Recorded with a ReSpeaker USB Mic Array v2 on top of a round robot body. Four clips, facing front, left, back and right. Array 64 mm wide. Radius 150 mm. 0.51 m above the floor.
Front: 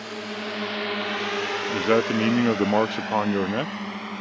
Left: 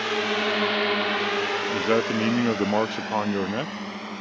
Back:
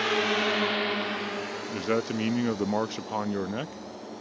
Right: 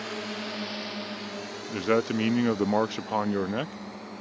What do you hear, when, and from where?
0.0 s a drone: 140° left; by 4.2 s 25° left
1.7 s a man speaking: 10° left